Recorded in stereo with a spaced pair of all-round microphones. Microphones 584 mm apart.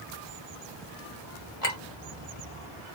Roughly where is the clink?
Left.